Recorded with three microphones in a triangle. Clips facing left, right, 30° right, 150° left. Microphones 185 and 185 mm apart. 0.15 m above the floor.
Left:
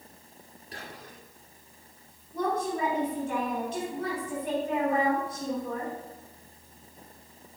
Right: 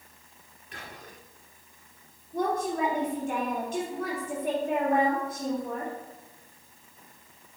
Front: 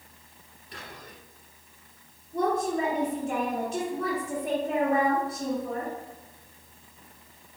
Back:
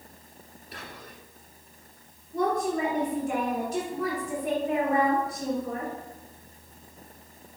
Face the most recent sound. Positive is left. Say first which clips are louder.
# right 1 dB, even
turn(degrees=-75)